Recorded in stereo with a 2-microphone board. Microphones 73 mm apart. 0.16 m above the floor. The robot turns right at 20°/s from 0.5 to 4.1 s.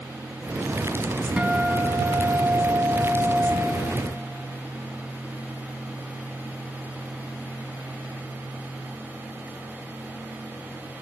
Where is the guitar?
15° right (ahead or behind), 0.5 m; by 3.5 s centre (ahead or behind), 0.5 m.